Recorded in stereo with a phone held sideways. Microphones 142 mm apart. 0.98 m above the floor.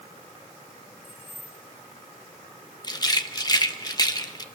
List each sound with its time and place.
1.0 s keys jangling: 65° left (ahead or behind), 6 m
2.8 s a rattle: 30° left (ahead or behind), 1.1 m